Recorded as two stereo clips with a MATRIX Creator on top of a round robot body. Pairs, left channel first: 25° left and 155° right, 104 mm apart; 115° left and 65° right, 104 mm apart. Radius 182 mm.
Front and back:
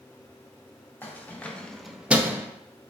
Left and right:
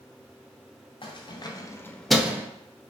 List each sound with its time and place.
1.0 s keys jangling: 90° left, 0.7 m; by 2.5 s 110° right, 0.6 m